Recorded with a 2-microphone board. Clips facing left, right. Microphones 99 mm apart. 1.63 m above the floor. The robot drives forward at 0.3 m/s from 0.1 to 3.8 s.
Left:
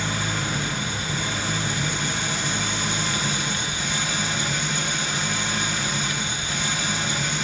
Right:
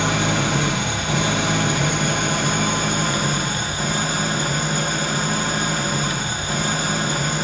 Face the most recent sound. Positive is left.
turn(degrees=-45)  # may be behind; listen again after turning